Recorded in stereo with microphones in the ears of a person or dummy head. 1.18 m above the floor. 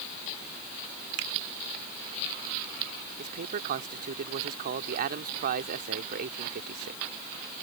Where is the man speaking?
45° right (ahead or behind).